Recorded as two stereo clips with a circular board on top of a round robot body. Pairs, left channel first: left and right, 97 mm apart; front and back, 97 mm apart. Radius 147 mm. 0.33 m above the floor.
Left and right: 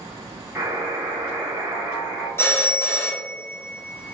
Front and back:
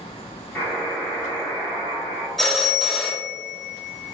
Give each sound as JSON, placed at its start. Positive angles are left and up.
{"t": 0.6, "sound": "a buzzer", "azimuth_deg": -55, "distance_m": 1.6}
{"t": 2.4, "sound": "a phone ringing", "azimuth_deg": 85, "distance_m": 0.9}